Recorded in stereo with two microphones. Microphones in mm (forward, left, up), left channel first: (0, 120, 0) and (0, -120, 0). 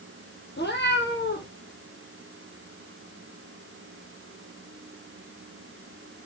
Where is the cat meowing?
45° left (ahead or behind), 2 m.